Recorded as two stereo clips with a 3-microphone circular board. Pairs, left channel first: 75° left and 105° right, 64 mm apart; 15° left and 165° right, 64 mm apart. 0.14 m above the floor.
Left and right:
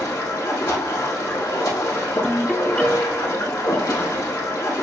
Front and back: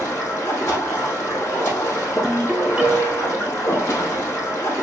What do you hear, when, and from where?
0.0 s running water: 70° left, 2.5 m
2.2 s a ringtone: 125° left, 1.1 m